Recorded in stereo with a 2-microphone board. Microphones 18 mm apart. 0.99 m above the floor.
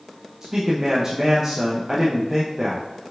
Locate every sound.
0.4 s a man speaking: 25° right (ahead or behind), 0.6 m